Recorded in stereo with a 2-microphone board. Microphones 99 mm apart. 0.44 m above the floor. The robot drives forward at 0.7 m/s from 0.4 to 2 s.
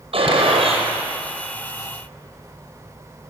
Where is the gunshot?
70° right (ahead or behind), 6 m.